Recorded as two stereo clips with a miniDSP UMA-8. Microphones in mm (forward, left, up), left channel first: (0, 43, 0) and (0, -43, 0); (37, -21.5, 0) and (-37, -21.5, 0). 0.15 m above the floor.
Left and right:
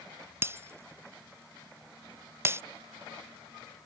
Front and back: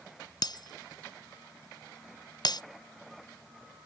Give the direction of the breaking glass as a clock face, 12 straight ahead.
1 o'clock.